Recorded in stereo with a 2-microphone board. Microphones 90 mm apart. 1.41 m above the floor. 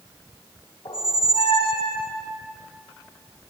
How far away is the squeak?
About 0.9 m.